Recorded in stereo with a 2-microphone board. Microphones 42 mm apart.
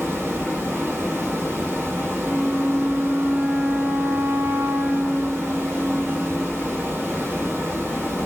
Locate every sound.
0.0 s running water: 70° right (ahead or behind), 2 m
2.2 s a flute: 55° right (ahead or behind), 1.6 m